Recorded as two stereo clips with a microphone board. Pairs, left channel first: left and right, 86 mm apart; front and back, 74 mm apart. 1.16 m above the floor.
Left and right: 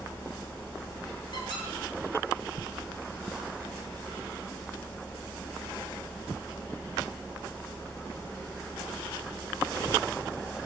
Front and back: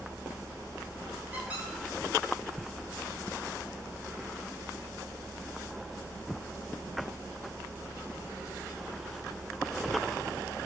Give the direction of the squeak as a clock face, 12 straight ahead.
8 o'clock.